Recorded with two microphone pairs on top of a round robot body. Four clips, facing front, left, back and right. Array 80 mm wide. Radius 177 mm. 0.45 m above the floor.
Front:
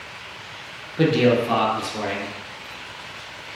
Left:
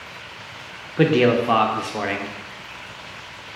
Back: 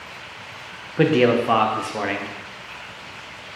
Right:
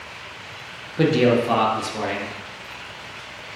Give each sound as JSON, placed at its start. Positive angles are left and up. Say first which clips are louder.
{"t": 1.0, "sound": "a man speaking", "louder": "left 1 dB, back 1 dB", "azimuth_deg": 150, "distance_m": 0.7}